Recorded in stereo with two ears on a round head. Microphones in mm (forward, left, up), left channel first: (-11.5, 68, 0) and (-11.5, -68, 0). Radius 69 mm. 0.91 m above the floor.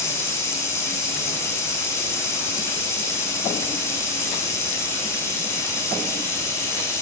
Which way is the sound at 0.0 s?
20° left (ahead or behind).